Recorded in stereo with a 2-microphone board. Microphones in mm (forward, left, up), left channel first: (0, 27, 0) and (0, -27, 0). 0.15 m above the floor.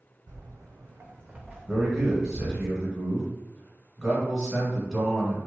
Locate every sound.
0.3 s footsteps: 75° right (ahead or behind), 0.8 m; by 2.7 s 25° left (ahead or behind), 1.2 m
1.7 s a man speaking: 5° right (ahead or behind), 1.2 m